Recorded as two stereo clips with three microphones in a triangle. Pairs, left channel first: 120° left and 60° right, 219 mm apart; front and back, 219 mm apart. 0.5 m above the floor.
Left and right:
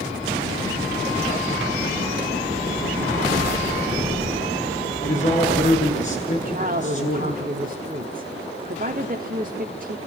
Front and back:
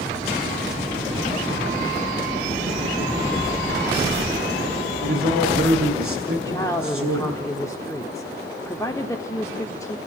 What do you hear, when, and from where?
5.0 s a man speaking: 175° left, 8.5 m
6.3 s a woman speaking: 70° right, 1.5 m